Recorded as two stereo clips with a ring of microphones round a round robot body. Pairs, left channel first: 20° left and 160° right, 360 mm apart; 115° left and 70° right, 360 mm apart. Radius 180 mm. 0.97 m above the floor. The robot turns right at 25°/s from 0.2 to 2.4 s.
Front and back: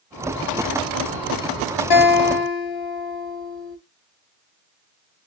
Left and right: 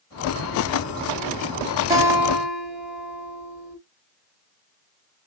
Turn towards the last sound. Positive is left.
turn(degrees=20)